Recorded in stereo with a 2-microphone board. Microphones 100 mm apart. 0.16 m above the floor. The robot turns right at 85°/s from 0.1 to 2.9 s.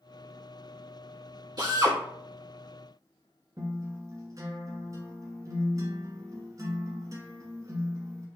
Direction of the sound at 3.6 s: 35° right (ahead or behind).